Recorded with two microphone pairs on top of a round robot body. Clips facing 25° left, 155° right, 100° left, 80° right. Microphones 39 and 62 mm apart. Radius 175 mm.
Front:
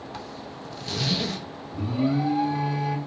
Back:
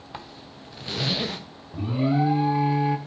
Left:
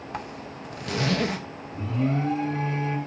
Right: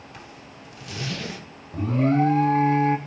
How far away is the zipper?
About 0.8 m.